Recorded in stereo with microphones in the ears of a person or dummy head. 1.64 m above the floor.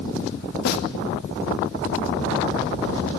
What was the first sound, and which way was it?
A snare drum, 55° left (ahead or behind).